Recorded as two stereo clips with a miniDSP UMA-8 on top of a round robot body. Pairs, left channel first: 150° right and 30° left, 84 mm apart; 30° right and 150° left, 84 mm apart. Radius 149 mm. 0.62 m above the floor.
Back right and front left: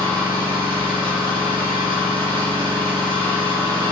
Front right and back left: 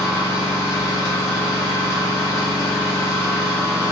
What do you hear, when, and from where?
0.0 s an engine running: 30° left, 0.8 m